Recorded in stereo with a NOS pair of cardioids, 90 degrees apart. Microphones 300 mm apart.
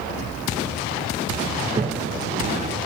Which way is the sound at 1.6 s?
25° right.